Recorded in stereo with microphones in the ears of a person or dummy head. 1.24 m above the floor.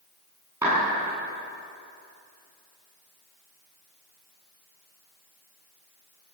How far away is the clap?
About 9 m.